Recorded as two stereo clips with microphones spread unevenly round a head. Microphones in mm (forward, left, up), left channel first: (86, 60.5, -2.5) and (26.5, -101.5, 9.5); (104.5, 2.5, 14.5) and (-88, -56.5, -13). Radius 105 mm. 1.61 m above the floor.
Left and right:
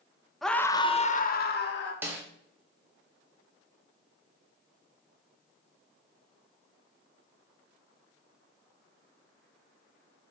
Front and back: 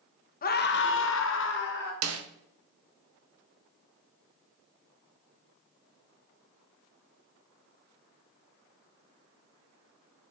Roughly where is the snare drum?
Behind.